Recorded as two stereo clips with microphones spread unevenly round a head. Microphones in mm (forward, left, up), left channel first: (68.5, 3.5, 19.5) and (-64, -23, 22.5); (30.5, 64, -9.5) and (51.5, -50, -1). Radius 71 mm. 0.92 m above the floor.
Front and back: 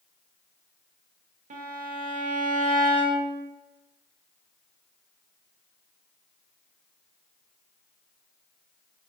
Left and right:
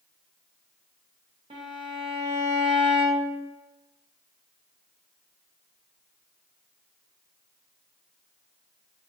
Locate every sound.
1.5 s a violin: 140° right, 0.5 m